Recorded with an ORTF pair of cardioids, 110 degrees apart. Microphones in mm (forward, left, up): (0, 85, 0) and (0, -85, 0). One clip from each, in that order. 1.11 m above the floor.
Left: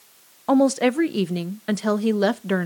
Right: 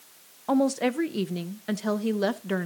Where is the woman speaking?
25° left, 0.5 m.